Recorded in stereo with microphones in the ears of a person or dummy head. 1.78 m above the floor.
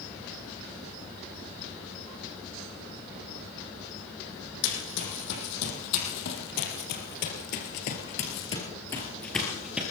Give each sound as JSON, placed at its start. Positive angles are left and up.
{"t": 4.6, "sound": "running footsteps", "side_deg": 65, "distance_m": 5.5}